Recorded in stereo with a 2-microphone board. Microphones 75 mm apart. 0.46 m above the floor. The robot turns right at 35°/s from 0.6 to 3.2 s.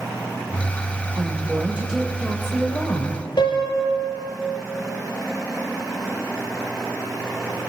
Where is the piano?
80° left, 2.5 m.